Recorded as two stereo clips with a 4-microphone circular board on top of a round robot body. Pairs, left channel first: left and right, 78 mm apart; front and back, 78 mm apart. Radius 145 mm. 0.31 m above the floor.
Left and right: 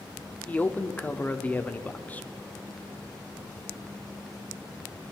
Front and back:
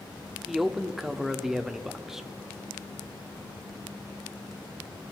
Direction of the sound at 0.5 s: 105° left.